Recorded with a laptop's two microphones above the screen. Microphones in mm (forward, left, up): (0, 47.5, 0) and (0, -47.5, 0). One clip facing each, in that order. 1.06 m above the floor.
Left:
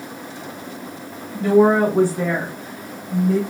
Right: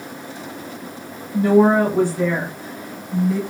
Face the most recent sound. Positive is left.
turn(degrees=65)  # may be behind; listen again after turning